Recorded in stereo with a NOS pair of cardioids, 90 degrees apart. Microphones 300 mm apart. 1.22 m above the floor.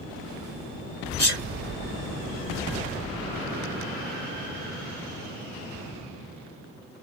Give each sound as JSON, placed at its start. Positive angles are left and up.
{"t": 1.2, "sound": "a sneeze", "azimuth_deg": 55, "distance_m": 1.1}